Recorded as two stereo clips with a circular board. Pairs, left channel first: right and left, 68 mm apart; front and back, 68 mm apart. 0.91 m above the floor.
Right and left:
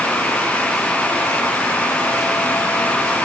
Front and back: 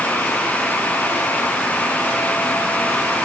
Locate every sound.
Only background noise.